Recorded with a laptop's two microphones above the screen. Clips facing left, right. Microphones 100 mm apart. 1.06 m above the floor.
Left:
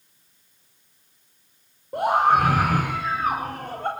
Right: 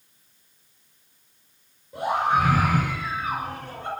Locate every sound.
1.9 s a scream: 60° left (ahead or behind), 4.5 m; by 3.9 s 55° left (ahead or behind), 3 m